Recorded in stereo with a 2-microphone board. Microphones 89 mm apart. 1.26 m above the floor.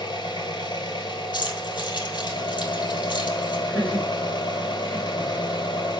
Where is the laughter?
15° left (ahead or behind), 3 m.